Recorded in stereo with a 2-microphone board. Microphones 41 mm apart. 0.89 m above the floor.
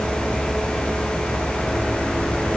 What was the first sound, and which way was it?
Only background noise.